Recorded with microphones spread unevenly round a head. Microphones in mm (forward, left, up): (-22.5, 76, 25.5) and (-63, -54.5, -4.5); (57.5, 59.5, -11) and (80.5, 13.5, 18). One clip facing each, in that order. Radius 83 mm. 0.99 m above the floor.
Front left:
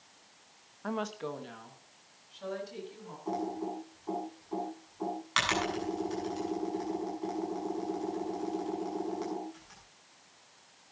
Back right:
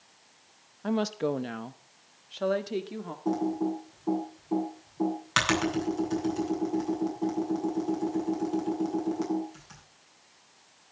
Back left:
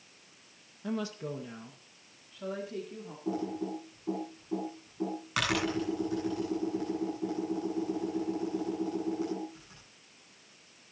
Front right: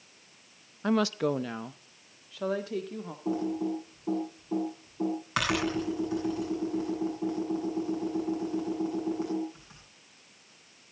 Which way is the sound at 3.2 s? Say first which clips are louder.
Back right 7 dB, front right 4 dB; 140° right.